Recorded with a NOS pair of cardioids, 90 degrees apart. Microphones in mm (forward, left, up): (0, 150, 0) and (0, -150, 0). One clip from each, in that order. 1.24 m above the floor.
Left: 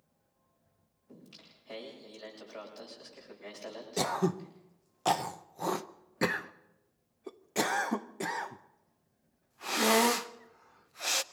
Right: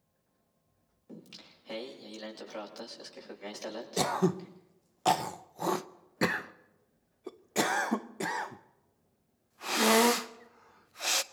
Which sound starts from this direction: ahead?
Throat clearing, at 4.0 s.